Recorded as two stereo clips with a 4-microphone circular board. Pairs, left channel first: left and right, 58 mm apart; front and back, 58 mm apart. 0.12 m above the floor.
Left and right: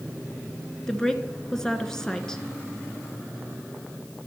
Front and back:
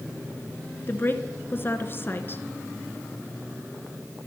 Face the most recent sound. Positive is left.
turn(degrees=15)